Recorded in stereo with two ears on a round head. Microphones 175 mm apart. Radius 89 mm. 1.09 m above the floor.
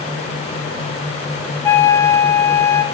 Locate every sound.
1.6 s a flute: 10° left (ahead or behind), 0.9 m